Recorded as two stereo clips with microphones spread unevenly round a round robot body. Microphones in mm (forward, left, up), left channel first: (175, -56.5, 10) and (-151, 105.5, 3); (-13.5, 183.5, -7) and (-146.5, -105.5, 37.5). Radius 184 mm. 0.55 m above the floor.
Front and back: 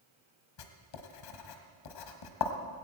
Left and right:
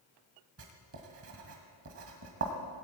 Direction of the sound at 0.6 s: 60° right.